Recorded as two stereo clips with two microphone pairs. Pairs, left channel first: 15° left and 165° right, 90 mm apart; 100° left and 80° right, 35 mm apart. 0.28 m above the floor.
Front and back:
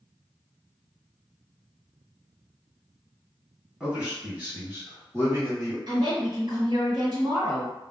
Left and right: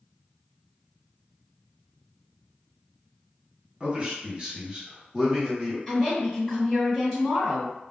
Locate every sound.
3.8 s a man speaking: 95° right, 1.7 m; by 5.8 s 175° right, 1.8 m
5.9 s a woman speaking: 175° left, 1.7 m